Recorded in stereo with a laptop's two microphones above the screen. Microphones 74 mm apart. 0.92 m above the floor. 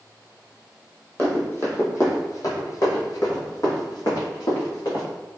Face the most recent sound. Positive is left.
turn(degrees=55)  # may be behind; listen again after turning